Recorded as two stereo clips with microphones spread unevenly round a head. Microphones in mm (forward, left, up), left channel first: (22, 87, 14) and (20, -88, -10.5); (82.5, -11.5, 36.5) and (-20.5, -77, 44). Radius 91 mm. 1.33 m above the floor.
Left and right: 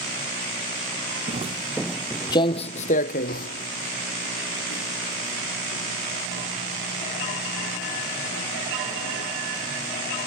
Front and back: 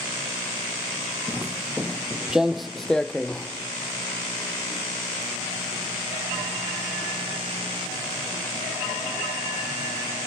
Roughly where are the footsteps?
Right.